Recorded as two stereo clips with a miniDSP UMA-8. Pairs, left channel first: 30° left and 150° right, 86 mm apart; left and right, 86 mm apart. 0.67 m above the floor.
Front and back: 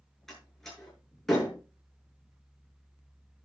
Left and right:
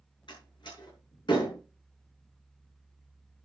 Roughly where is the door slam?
Behind left.